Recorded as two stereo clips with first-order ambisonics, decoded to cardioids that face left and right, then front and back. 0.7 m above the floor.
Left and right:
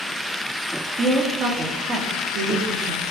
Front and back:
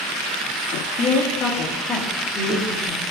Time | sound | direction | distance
1.0 | a woman speaking | 15° right | 1.3 m